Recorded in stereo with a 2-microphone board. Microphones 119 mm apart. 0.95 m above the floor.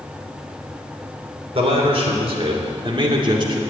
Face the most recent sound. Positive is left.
turn(degrees=-40)  # may be behind; listen again after turning